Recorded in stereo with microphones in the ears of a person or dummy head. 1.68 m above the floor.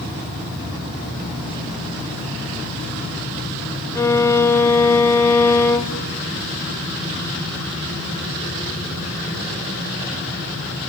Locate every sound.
4.0 s a violin: 15° left (ahead or behind), 1.0 m